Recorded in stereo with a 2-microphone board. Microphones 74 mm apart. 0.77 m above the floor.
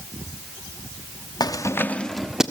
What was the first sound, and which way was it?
Keys jangling, 65° left (ahead or behind).